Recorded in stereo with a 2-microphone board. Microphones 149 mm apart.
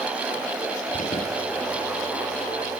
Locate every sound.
0.9 s an alarm: 60° left (ahead or behind), 9.5 m